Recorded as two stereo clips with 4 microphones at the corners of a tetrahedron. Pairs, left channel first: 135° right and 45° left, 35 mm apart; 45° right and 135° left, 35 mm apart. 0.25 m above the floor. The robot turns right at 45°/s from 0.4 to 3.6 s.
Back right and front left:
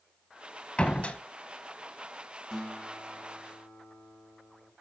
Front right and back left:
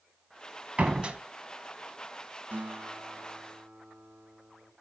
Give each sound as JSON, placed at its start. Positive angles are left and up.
{"t": 0.8, "sound": "a door slam", "azimuth_deg": 170, "distance_m": 1.1}
{"t": 2.5, "sound": "a guitar", "azimuth_deg": 145, "distance_m": 3.0}